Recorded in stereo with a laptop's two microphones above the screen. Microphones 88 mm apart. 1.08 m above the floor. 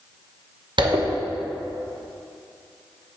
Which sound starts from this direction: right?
A zipper, at 0.8 s.